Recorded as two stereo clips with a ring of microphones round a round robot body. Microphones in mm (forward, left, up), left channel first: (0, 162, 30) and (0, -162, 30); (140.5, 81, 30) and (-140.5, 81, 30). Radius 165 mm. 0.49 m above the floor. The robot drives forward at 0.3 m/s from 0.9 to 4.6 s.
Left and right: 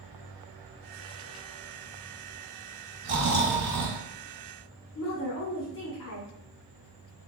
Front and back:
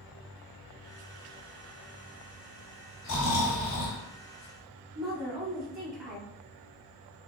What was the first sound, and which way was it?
Snoring, 45° right.